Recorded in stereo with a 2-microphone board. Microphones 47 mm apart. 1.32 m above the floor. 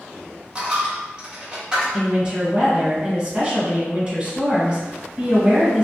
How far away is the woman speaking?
About 1.1 m.